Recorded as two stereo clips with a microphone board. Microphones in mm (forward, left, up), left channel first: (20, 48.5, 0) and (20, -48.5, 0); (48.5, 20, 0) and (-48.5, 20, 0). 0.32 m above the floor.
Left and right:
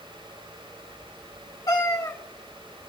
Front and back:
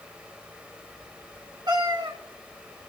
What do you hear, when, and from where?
1.7 s a cat meowing: 135° left, 2 m